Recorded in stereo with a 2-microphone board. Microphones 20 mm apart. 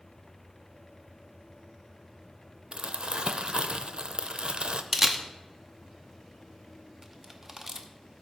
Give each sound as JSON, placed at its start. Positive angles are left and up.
{"t": 2.7, "sound": "crumpling", "side_deg": -60, "distance_m": 0.6}
{"t": 4.9, "sound": "a camera shutter", "side_deg": -10, "distance_m": 0.8}